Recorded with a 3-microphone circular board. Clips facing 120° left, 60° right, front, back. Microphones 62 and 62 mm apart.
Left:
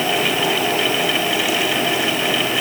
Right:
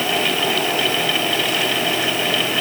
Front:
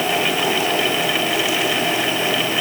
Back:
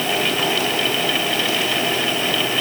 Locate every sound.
Only background noise.